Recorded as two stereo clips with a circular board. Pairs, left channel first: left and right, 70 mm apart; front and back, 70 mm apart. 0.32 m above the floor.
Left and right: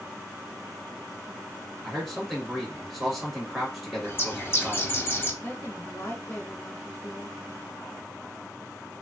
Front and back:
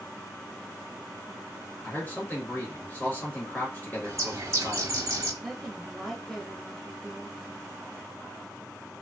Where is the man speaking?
5° right, 1.2 m.